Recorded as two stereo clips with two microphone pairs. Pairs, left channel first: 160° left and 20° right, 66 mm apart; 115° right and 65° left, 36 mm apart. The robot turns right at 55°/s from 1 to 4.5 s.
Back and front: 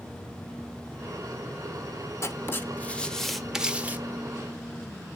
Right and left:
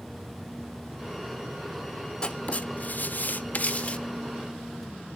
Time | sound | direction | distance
2.2 | writing | 170° right | 1.0 m